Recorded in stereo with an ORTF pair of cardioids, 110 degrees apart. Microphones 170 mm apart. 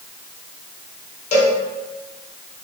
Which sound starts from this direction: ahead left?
A cowbell, at 1.3 s.